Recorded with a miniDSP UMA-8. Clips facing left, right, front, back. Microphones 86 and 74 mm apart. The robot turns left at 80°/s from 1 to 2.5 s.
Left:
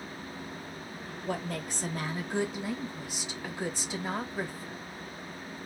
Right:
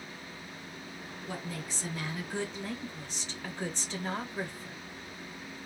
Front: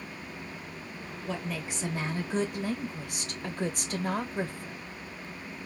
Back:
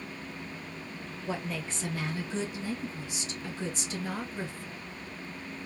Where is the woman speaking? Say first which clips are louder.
Left 6 dB, even; 110° left, 0.9 m; by 4.8 s 10° left, 0.9 m.